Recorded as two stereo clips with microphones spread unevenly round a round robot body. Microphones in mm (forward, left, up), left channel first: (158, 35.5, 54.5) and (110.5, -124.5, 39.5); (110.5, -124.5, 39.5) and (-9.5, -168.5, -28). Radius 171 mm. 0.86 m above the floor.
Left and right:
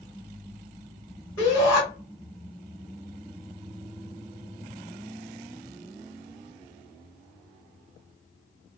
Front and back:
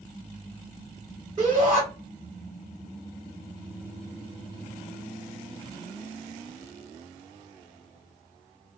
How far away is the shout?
About 1.7 m.